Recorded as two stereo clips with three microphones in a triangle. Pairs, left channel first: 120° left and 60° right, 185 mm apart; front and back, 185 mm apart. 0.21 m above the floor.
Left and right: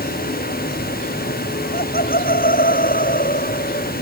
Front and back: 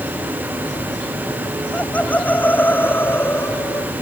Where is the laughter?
85° left; by 3.9 s 80° left.